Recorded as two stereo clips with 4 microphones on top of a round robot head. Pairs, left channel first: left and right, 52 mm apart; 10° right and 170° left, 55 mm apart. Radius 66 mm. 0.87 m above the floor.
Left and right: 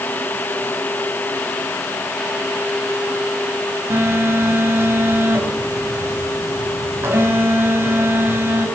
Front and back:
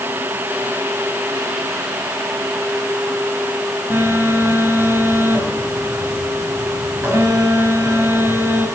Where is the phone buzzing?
130° right, 5.5 m.